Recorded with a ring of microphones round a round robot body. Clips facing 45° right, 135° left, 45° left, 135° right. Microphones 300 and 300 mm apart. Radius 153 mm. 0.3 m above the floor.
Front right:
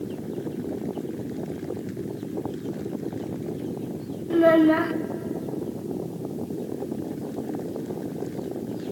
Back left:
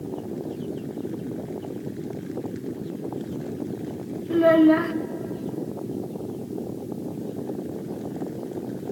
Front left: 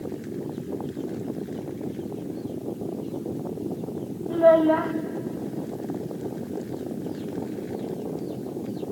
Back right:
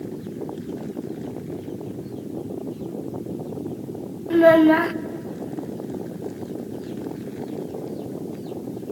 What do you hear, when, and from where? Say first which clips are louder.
4.3 s a child speaking: back left 1 dB, back right 5 dB; 135° right, 0.5 m